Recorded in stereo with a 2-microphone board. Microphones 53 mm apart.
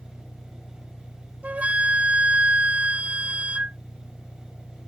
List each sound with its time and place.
0.0 s an engine running: 75° left (ahead or behind)
1.4 s a flute: 30° right (ahead or behind)